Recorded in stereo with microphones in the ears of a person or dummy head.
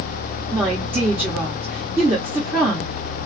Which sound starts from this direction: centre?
A woman speaking, at 0.5 s.